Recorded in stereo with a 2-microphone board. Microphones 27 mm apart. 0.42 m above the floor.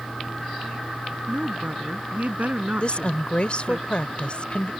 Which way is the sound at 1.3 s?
70° right (ahead or behind).